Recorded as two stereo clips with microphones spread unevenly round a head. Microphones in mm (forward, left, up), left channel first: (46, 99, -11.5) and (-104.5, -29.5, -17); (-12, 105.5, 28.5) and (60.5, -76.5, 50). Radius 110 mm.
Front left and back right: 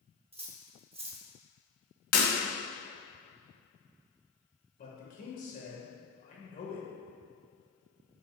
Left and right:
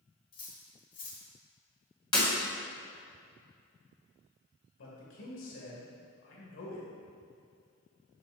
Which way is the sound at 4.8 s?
90° left.